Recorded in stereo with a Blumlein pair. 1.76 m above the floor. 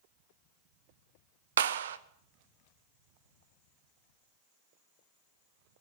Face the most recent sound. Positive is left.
turn(degrees=-60)